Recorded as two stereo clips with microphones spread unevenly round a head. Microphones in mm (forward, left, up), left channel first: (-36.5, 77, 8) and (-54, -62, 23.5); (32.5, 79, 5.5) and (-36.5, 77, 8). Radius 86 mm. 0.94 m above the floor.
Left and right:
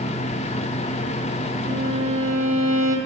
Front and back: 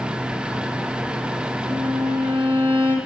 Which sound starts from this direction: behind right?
A violin, at 1.6 s.